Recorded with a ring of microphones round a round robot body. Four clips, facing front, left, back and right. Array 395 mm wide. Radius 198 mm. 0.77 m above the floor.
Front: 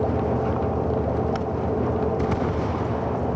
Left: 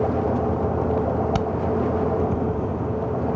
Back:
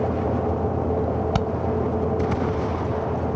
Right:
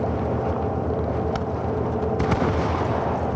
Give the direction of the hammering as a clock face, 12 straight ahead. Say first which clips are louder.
Left 3 dB, back 3 dB; 7 o'clock.